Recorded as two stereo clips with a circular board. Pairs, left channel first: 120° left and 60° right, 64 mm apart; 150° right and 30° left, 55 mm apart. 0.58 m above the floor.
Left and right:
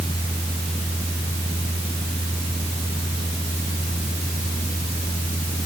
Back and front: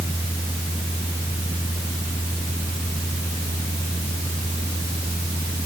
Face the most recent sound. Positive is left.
No sound to turn to.